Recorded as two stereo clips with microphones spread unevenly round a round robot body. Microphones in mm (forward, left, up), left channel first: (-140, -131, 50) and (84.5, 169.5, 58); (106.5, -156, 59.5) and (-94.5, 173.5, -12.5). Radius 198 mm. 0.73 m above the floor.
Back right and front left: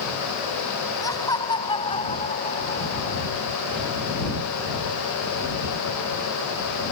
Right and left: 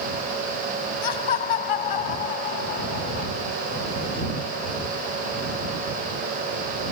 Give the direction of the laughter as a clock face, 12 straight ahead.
1 o'clock.